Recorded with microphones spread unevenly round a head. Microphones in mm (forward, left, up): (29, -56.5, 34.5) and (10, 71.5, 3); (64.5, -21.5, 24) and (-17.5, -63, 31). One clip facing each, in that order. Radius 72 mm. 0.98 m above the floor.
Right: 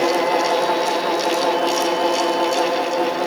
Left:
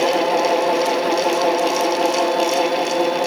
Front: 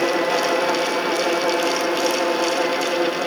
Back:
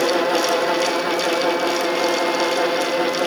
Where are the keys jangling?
No keys jangling in this recording.